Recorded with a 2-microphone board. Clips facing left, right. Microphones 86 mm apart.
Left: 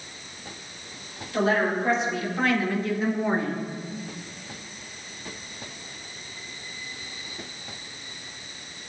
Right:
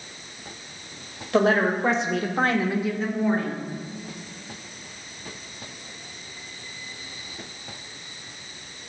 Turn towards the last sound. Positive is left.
turn(degrees=30)  # may be behind; listen again after turning